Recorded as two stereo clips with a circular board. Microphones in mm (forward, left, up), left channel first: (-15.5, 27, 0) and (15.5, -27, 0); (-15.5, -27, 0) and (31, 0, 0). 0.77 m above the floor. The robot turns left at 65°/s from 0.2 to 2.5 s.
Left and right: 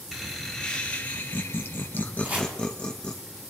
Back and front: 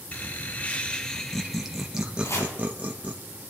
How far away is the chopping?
About 2.5 m.